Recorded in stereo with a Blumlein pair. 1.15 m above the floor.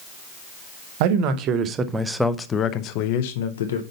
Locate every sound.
1.0 s a man speaking: 45° right, 1.0 m; by 3.8 s 65° left, 1.0 m